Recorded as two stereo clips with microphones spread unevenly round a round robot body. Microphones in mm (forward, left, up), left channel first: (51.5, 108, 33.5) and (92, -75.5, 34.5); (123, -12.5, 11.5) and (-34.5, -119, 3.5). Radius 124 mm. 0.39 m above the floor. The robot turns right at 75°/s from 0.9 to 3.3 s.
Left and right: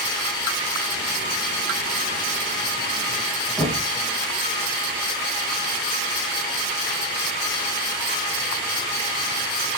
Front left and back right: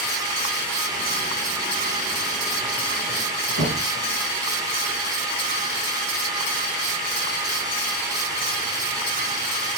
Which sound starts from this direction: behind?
Knocking, at 3.6 s.